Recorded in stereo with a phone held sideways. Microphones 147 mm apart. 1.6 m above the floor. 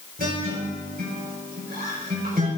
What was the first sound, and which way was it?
A guitar, 80° right.